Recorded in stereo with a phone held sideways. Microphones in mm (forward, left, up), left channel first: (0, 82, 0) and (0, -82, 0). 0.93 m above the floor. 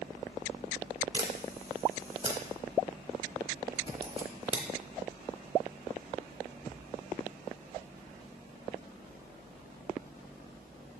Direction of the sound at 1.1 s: 35° right (ahead or behind).